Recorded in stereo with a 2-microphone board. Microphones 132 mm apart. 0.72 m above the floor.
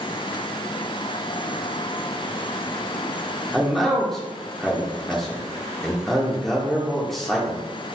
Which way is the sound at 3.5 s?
Centre (ahead or behind).